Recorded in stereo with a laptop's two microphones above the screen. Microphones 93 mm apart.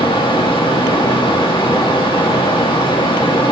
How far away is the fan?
About 1.2 m.